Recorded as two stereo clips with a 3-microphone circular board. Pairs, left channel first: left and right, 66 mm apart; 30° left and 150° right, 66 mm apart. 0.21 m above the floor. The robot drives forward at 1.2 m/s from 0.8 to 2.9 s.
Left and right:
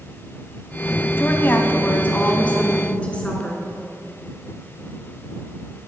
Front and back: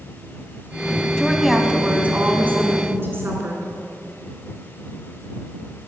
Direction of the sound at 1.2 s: 105° left.